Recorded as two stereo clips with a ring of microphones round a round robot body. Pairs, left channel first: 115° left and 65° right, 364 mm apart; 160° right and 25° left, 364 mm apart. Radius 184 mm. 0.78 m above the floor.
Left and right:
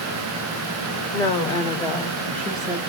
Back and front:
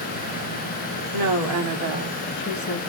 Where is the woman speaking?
35° left, 1.7 m; by 2.8 s 150° right, 1.0 m.